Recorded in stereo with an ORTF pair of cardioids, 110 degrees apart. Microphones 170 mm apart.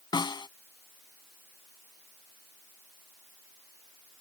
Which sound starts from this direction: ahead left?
A snare drum, at 0.1 s.